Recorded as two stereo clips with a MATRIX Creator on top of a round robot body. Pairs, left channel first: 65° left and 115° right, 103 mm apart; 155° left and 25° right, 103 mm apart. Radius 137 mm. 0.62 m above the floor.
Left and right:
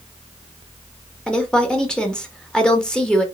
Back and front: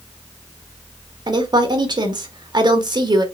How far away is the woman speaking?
About 1.5 m.